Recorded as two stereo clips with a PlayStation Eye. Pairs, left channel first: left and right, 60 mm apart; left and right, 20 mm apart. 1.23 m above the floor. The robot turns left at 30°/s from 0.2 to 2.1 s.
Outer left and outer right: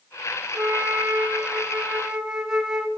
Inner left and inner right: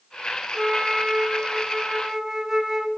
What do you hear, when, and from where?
0.6 s a flute: 115° right, 0.6 m; by 2.9 s 165° right, 0.6 m